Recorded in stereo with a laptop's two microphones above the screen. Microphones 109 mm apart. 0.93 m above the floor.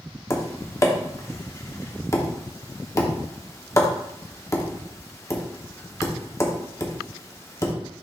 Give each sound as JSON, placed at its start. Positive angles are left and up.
{"t": 0.3, "sound": "tapping", "side_deg": 30, "distance_m": 0.8}